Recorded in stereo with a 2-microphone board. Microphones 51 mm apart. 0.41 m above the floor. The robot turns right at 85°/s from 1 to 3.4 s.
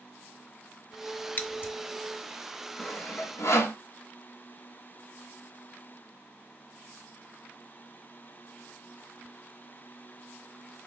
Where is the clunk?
I don't hear a clunk.